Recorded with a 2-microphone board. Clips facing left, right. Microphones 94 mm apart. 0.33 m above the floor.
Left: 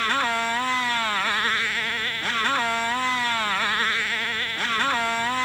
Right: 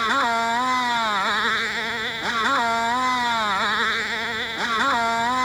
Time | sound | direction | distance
0.0 | a motorcycle | 15° right (ahead or behind) | ?